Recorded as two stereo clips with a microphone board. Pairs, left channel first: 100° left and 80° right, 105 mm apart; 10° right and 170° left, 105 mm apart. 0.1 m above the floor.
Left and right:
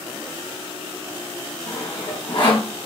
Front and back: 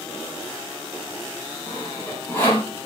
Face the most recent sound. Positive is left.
turn(degrees=55)